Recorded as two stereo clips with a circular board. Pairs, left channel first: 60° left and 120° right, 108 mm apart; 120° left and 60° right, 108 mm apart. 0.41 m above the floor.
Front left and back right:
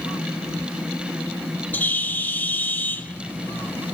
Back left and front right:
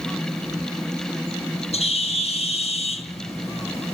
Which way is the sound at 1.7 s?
135° left.